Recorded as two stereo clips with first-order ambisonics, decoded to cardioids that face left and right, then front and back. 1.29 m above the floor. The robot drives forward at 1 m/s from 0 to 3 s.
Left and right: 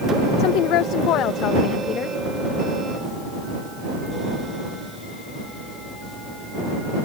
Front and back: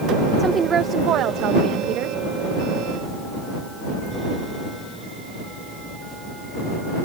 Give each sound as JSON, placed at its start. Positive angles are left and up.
{"t": 0.4, "sound": "a woman speaking", "azimuth_deg": 105}